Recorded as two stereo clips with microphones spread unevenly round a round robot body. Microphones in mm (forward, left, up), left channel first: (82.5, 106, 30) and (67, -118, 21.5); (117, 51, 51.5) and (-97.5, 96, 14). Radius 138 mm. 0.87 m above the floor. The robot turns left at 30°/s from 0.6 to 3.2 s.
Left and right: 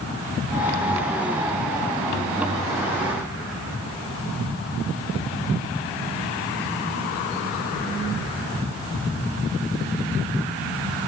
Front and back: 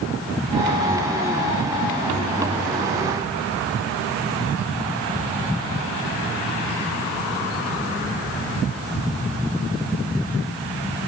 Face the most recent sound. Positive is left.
No sound to turn to.